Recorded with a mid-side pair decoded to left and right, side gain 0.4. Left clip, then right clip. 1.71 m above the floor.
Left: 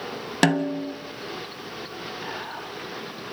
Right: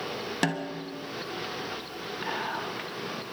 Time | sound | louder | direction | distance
0.4 | a snare drum | left 10 dB | 55° left | 1.1 m
2.2 | whispering | right 6 dB | 30° right | 3.5 m